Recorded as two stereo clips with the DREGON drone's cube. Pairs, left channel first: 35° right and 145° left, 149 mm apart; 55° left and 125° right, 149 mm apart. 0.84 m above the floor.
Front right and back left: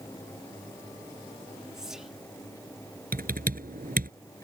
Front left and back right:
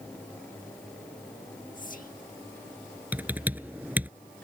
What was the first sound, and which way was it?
Whispering, 60° left.